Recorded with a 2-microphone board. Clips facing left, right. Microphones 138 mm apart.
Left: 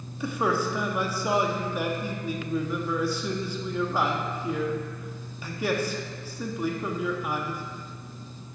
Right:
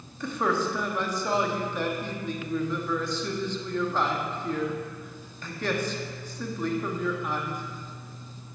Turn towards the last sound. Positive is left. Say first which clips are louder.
# left 1 dB
turn(degrees=10)  # may be behind; listen again after turning